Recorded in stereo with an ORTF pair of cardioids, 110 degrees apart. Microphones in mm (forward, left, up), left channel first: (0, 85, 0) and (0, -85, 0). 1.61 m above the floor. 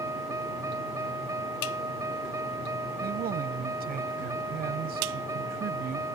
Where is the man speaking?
60° right.